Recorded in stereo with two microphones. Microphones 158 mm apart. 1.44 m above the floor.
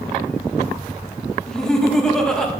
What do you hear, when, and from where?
1.5 s laughter: 5° left (ahead or behind), 2.5 m